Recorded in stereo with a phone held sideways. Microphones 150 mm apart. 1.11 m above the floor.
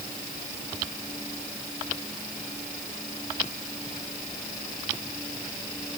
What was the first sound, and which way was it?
Only background noise.